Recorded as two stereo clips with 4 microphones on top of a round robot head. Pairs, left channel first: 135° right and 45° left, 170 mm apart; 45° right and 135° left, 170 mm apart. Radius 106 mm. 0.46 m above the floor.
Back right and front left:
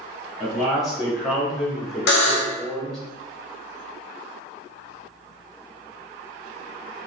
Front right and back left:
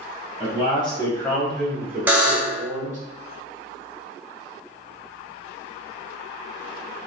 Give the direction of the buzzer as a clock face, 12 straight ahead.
5 o'clock.